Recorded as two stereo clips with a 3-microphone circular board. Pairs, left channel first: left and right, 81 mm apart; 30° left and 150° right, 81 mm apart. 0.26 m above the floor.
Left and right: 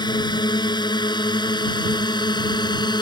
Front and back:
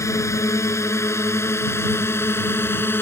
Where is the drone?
80° left; by 3.0 s 90° left.